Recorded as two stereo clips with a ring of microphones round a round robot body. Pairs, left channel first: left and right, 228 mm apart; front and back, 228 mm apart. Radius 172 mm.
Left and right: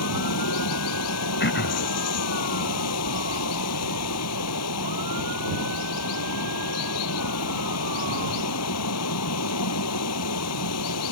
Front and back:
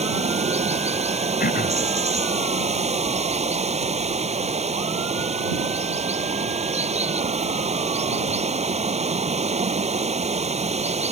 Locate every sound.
0.0 s running water: 120° left
1.4 s throat clearing: 50° left